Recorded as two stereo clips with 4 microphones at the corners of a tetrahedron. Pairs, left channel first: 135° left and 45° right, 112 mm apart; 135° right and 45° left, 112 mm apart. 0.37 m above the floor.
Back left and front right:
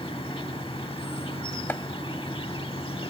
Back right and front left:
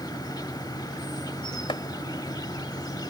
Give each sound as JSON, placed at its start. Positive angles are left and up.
{"t": 0.0, "sound": "an insect", "azimuth_deg": 175}
{"t": 1.7, "sound": "chopping", "azimuth_deg": -155}